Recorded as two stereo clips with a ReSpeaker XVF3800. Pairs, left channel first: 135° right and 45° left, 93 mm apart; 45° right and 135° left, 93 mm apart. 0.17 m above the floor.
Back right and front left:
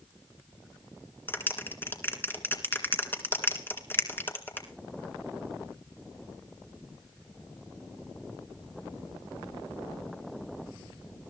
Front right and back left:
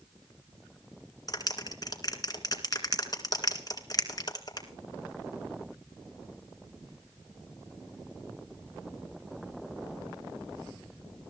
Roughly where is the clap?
Right.